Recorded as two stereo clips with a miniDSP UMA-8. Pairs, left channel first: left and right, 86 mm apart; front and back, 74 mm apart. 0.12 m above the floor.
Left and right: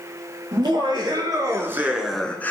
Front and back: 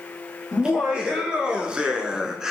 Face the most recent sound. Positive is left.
turn(degrees=105)